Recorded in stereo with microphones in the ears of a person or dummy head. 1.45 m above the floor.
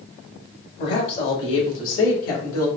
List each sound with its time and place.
0.8 s a woman speaking: 60° left (ahead or behind), 1.7 m; by 2.7 s 85° left, 1.5 m